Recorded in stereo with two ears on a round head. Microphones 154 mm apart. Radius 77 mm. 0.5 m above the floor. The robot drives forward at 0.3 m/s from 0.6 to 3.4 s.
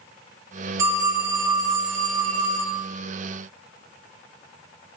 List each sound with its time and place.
0.8 s a phone ringing: 20° right (ahead or behind), 0.7 m; by 2.8 s 25° right (ahead or behind), 0.5 m